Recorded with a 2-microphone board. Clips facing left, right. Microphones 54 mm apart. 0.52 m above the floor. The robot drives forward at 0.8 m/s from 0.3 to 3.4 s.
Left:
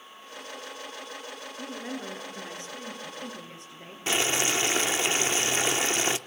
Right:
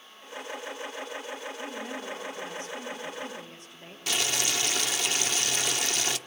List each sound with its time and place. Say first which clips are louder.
1.6 s a woman speaking: even; 80° left, 8.5 m; by 4.0 s 85° left, 8.5 m
4.1 s boiling: left 4 dB; 30° left (ahead or behind), 0.9 m